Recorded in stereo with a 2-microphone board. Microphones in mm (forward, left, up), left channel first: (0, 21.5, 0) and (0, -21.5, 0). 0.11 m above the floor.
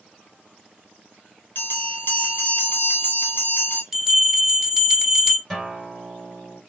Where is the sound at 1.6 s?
60° left (ahead or behind), 1.3 m.